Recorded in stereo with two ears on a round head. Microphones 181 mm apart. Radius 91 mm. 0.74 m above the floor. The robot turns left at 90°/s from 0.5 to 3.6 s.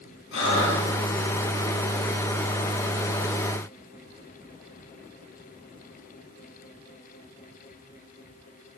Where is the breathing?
60° left (ahead or behind), 7 m; by 1.3 s 50° left (ahead or behind), 7 m.